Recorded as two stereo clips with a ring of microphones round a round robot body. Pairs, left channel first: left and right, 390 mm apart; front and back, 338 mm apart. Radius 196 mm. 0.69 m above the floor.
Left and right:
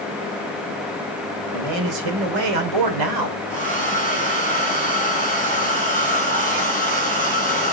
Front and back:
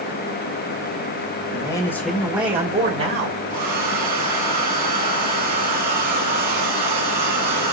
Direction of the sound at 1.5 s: 75° right.